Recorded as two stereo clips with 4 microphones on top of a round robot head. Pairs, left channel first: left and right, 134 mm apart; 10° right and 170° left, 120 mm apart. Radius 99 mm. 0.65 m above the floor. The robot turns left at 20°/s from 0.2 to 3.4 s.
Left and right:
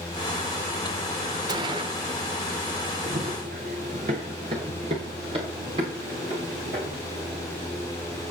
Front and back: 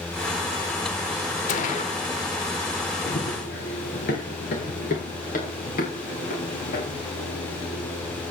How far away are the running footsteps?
About 3 m.